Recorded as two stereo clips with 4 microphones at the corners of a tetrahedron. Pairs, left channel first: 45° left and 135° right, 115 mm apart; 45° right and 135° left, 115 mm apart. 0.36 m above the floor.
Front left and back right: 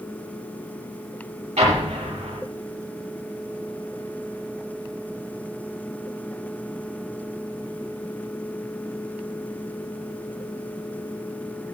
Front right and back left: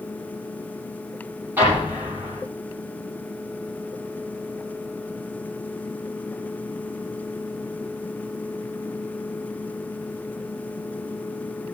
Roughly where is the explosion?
Behind right.